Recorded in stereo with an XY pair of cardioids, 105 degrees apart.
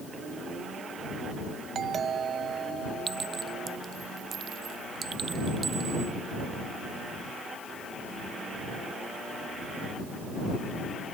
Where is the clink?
40° right.